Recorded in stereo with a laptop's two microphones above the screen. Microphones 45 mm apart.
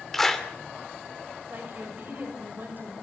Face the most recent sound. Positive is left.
turn(degrees=-45)  # may be behind; listen again after turning